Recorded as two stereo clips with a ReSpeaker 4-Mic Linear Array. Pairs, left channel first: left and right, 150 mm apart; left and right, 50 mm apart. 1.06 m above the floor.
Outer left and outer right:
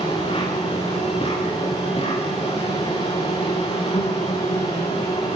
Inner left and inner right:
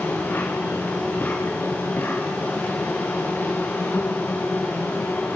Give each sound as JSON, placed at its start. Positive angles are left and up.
{"t": 0.0, "sound": "an insect", "side_deg": 40, "distance_m": 10.0}